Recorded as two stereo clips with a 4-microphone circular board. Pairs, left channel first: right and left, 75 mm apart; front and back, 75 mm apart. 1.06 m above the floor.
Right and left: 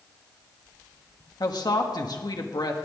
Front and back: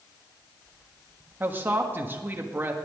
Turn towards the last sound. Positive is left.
turn(degrees=-120)